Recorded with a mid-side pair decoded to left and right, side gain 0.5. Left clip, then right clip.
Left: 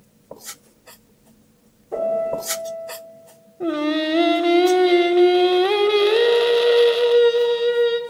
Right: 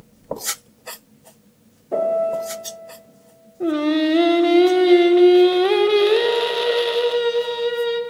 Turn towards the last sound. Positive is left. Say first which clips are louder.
# right 2 dB
turn(degrees=10)